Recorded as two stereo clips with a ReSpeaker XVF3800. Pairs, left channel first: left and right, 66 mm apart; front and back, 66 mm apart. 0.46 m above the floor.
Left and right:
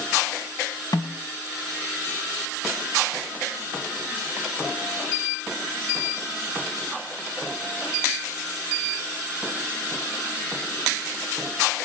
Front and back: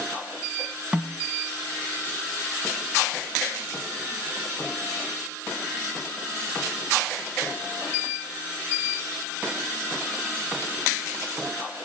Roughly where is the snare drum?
Left.